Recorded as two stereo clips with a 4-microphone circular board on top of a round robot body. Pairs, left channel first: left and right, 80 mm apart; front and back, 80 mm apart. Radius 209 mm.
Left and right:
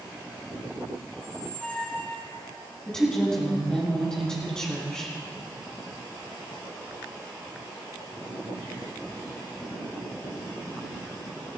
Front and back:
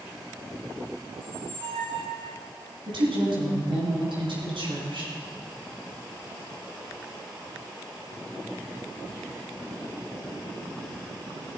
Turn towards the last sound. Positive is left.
turn(degrees=170)